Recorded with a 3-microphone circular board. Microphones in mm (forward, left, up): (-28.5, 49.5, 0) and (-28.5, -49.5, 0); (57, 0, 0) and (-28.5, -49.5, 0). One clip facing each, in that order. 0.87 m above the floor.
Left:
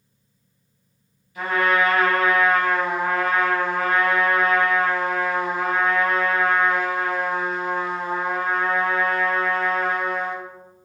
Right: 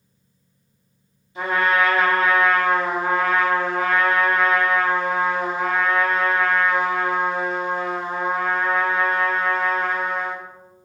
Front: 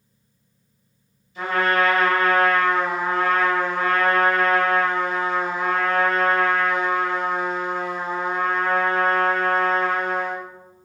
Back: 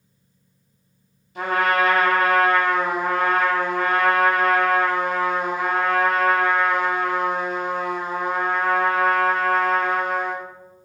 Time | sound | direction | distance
1.4 | a trumpet | 150° right | 1.0 m